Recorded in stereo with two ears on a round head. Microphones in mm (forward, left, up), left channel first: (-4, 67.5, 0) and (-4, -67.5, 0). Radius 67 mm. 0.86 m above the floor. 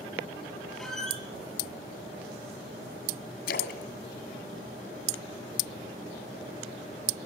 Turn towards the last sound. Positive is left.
turn(degrees=65)  # may be behind; listen again after turning